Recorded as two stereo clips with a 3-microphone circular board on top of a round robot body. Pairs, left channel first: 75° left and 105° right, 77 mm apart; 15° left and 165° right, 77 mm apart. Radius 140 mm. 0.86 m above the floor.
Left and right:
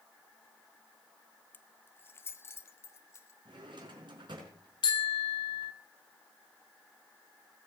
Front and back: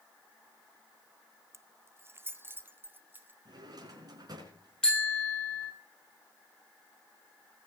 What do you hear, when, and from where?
1.5 s keys jangling: 140° left, 1.1 m; by 3.4 s 130° left, 2 m
3.5 s a drawer: 125° right, 5 m
4.8 s a bicycle bell: 95° left, 3 m